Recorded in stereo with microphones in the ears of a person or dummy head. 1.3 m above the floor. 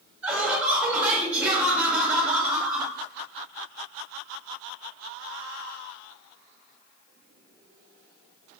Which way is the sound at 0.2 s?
10° right (ahead or behind).